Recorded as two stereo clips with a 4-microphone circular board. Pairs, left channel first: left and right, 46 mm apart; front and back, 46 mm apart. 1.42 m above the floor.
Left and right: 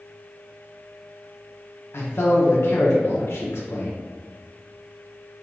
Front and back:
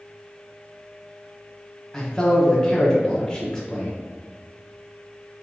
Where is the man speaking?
70° left, 0.9 m.